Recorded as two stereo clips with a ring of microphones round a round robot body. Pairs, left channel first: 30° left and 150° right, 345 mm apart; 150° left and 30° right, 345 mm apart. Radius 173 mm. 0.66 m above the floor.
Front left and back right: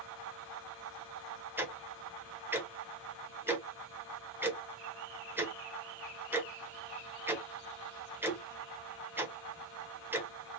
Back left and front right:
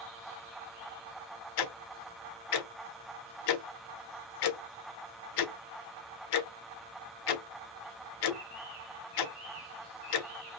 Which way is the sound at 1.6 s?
125° left.